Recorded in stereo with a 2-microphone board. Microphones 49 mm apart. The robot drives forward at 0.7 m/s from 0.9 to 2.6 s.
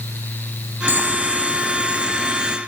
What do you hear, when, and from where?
0.9 s boiling: 45° right (ahead or behind); by 2.6 s 20° right (ahead or behind)